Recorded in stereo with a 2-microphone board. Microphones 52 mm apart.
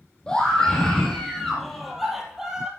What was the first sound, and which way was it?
A scream, 15° left (ahead or behind).